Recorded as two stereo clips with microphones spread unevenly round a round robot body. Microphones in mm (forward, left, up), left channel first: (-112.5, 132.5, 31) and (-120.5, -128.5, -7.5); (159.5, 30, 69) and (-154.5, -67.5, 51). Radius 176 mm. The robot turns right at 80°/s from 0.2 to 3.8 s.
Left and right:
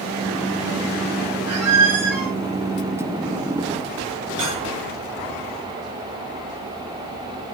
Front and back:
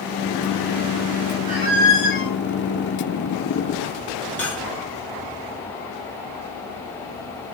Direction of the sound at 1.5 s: 100° right.